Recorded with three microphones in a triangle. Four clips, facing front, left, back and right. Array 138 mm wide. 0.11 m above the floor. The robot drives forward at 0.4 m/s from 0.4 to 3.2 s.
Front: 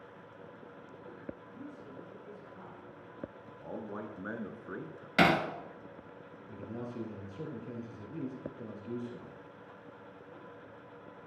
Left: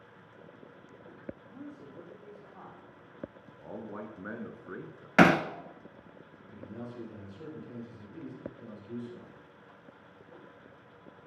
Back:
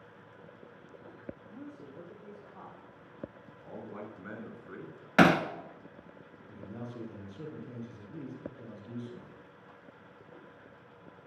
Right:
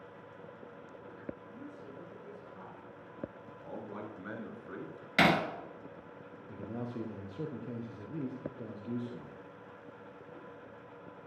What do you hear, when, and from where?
1.5 s a man speaking: 125° left, 6.5 m; by 3.0 s 130° left, 7 m
3.6 s a man speaking: 40° left, 1.9 m
5.2 s hammering: 125° left, 0.9 m
6.5 s a man speaking: 70° right, 3.5 m